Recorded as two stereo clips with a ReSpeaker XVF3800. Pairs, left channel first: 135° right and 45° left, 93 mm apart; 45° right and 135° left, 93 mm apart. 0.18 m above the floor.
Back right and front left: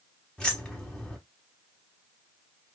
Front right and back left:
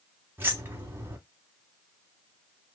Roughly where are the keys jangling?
Behind left.